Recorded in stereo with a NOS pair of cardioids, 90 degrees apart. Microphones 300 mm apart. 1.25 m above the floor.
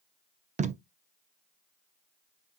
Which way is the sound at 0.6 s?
25° right.